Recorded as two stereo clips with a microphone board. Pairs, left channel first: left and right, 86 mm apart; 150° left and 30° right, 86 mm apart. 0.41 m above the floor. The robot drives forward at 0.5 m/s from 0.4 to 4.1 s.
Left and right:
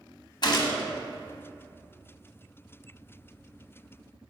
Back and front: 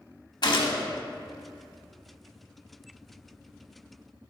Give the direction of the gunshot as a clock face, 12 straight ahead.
8 o'clock.